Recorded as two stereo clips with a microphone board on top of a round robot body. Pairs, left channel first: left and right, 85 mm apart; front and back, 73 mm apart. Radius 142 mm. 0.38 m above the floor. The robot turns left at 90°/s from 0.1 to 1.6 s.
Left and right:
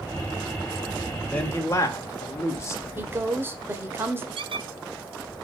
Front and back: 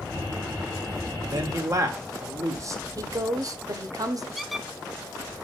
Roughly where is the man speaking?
Behind.